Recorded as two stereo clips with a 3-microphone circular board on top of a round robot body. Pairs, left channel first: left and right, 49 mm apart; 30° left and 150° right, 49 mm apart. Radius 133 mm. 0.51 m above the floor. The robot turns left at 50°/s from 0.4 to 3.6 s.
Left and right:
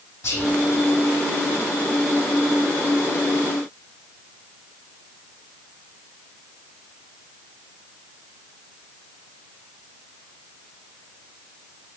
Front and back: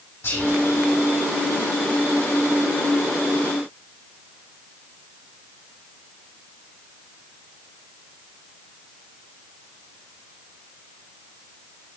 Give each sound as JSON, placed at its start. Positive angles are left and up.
{"t": 0.2, "sound": "whispering", "azimuth_deg": 65, "distance_m": 4.5}